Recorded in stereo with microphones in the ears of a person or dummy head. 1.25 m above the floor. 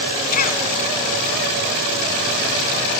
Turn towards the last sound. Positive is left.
turn(degrees=50)  # may be behind; listen again after turning